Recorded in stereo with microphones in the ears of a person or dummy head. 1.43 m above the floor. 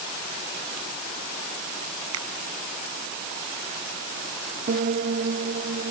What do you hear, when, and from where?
2.1 s a finger snap: 80° right
4.7 s a piano: 40° right (ahead or behind)